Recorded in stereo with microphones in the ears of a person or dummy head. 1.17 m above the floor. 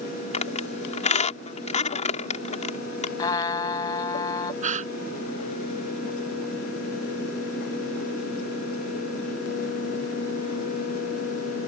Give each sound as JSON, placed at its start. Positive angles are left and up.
{"t": 0.3, "sound": "a squeak", "side_deg": 30}
{"t": 3.2, "sound": "a trumpet", "side_deg": 25}
{"t": 4.6, "sound": "a gasp", "side_deg": -45}